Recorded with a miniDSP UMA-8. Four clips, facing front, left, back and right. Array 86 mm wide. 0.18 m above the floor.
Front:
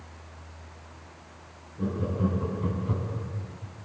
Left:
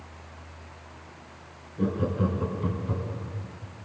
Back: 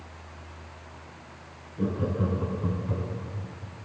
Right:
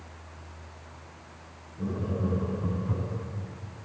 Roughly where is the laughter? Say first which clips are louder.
Left 5 dB, back 1 dB; behind left.